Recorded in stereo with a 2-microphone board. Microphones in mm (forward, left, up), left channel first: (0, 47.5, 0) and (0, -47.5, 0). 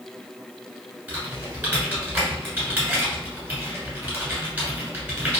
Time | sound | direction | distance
1.1 | typing on a keyboard | 15° right (ahead or behind) | 1.5 m